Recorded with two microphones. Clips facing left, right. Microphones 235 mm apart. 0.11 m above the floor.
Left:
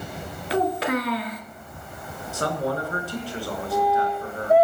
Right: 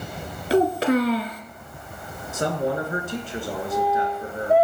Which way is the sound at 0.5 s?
30° right (ahead or behind).